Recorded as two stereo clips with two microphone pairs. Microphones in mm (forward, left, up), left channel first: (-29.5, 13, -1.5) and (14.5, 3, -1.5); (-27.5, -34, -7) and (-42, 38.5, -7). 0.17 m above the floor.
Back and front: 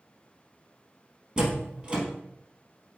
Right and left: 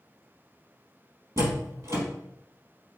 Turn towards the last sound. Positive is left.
turn(degrees=55)